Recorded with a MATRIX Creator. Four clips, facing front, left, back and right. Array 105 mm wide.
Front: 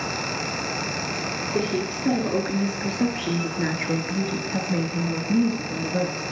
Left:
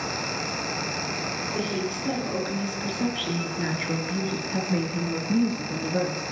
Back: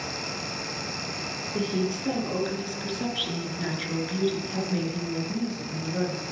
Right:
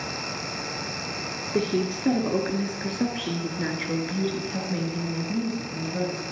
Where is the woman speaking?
55° right, 1.9 m; by 6.2 s 55° left, 2.0 m.